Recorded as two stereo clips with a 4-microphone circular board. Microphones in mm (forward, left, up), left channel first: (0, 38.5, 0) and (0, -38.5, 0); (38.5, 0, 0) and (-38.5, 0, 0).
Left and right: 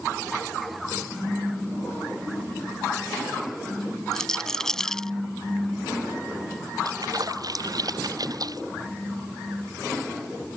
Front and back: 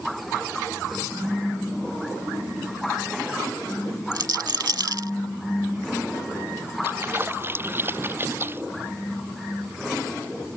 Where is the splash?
120° right.